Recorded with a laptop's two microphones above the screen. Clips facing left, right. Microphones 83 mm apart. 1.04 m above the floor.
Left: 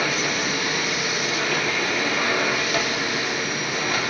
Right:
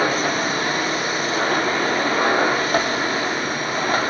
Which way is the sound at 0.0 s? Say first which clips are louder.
Right 4 dB; 40° right (ahead or behind).